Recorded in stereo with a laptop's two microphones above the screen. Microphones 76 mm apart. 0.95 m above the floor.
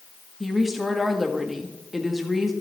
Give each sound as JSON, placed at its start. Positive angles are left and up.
{"t": 0.4, "sound": "a woman speaking", "side_deg": 0, "distance_m": 1.2}